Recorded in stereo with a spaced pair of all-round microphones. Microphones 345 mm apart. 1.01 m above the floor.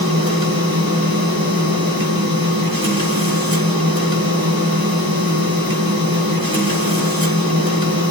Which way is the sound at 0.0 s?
80° right.